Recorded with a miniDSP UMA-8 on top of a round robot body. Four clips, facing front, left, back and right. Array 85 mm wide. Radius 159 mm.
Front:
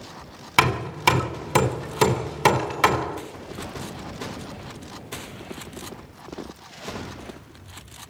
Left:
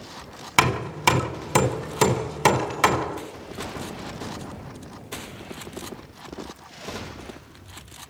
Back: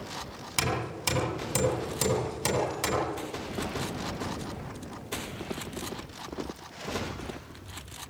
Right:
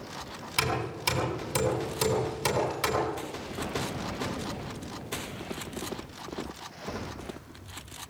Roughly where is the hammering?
Ahead left.